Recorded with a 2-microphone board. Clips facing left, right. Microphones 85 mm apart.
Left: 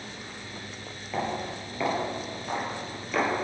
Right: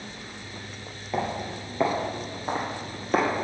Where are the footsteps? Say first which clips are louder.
Right 2 dB; 20° right (ahead or behind), 2 m; by 3.5 s 50° right (ahead or behind), 2.5 m.